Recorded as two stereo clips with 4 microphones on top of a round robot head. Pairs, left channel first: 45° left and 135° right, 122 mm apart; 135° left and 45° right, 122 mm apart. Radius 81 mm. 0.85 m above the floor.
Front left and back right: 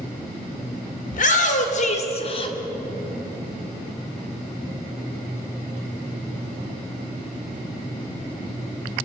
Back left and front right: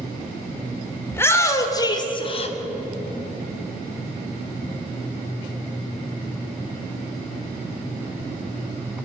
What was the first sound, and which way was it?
A shout, 60° left.